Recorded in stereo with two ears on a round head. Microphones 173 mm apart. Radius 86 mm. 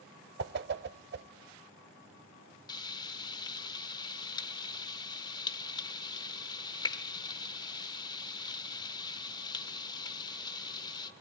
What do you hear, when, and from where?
0.4 s a whoosh: 55° right (ahead or behind), 0.8 m
2.7 s frying: 20° left (ahead or behind), 1.0 m